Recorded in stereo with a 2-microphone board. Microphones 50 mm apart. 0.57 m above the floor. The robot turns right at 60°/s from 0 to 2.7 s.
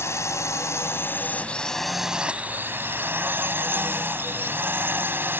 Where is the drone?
65° left; by 5.4 s 130° right.